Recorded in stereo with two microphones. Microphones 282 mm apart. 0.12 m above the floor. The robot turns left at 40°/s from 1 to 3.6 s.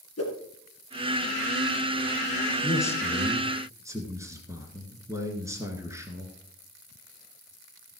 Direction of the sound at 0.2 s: 60° left (ahead or behind).